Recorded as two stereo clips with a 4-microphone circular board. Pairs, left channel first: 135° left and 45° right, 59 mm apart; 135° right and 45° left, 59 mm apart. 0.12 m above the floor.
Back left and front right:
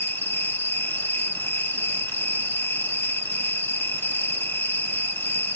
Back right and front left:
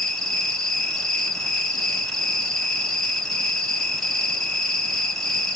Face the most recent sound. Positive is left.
turn(degrees=145)